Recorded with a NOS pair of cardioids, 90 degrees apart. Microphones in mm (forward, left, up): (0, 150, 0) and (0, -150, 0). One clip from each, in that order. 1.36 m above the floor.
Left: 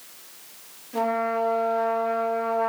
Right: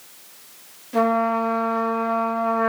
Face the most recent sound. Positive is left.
turn(degrees=-45)